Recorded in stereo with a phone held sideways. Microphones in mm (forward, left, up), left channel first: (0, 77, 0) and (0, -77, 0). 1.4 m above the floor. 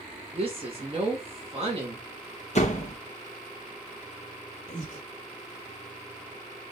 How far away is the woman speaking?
About 1.1 m.